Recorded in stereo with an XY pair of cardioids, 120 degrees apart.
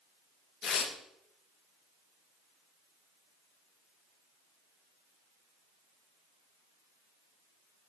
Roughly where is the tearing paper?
Ahead left.